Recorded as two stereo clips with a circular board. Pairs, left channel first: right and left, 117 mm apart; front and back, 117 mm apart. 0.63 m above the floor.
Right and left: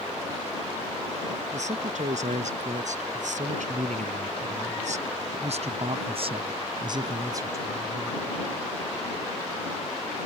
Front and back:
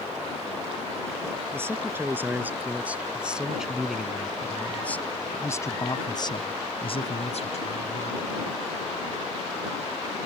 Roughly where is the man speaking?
Left.